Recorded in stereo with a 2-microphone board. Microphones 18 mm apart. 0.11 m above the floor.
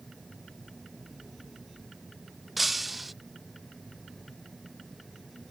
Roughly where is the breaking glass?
Centre.